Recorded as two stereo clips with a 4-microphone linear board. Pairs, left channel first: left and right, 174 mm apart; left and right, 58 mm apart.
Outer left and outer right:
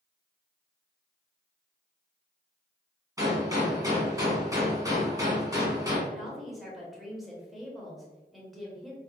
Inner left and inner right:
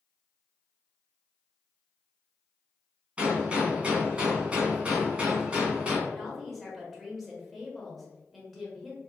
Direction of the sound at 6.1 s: Centre (ahead or behind).